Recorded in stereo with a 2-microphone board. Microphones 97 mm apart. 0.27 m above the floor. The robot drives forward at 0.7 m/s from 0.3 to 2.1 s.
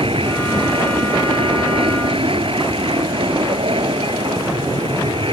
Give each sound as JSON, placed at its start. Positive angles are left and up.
{"t": 0.0, "sound": "an aircraft", "side_deg": -70}